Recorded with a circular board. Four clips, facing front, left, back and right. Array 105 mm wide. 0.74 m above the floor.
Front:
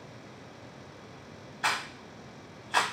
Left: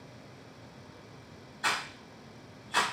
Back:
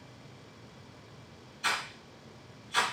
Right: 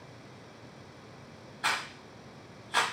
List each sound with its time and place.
1.6 s a rattle: 10° right, 0.8 m